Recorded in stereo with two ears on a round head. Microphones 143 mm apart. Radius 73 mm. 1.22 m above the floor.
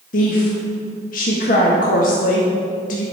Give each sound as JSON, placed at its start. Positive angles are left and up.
{"t": 0.1, "sound": "a woman speaking", "side_deg": 60, "distance_m": 1.7}